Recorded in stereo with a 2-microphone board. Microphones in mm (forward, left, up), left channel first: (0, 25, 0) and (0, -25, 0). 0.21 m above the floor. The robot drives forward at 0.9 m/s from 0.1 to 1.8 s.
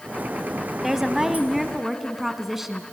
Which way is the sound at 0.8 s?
5° right (ahead or behind).